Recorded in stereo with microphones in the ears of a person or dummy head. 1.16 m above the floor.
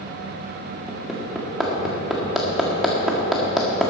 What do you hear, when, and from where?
0.9 s hammering: centre (ahead or behind), 1.6 m